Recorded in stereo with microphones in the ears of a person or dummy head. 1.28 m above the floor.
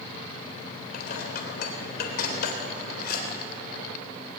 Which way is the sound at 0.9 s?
55° left (ahead or behind).